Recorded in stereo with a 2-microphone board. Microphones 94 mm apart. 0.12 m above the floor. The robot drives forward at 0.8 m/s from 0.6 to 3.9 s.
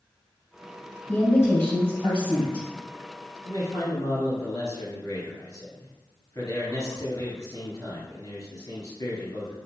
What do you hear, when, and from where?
1.1 s a woman speaking: 25° left (ahead or behind), 1.9 m; by 2.7 s 15° left (ahead or behind), 3 m
3.5 s a man speaking: 50° left (ahead or behind), 1.6 m; by 9.6 s 45° left (ahead or behind), 1.7 m